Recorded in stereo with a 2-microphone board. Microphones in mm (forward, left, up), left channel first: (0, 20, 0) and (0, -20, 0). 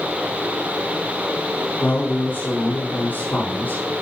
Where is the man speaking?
45° left (ahead or behind), 4.5 m.